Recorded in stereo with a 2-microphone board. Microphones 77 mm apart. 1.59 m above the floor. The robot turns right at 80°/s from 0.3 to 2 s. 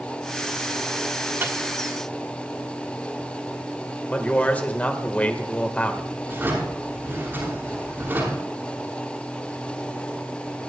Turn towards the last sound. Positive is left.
turn(degrees=-30)  # may be behind; listen again after turning